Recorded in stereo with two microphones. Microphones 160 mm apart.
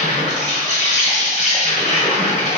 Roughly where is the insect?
Left.